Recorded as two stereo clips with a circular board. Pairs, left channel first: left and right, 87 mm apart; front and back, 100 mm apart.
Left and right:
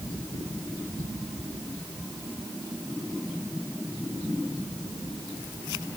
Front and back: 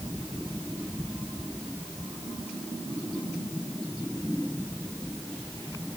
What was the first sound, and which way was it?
Only background noise.